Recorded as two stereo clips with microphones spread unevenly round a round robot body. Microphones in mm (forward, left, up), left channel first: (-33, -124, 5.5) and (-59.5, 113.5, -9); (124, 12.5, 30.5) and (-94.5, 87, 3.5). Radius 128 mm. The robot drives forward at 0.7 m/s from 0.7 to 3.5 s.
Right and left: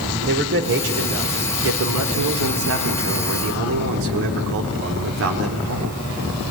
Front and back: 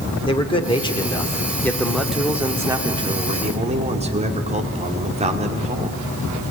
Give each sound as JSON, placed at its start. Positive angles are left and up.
{"t": 0.3, "sound": "a man speaking", "azimuth_deg": 50, "distance_m": 2.5}